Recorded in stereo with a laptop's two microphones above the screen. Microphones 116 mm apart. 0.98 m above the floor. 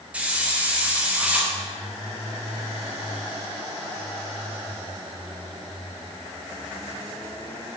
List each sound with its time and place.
0.1 s a hiss: 10° right (ahead or behind), 0.7 m